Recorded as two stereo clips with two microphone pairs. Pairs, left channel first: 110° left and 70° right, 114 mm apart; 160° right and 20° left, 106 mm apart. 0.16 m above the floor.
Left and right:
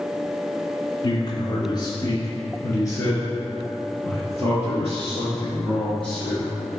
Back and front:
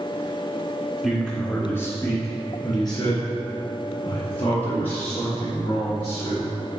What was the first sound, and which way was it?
A man speaking, 115° left.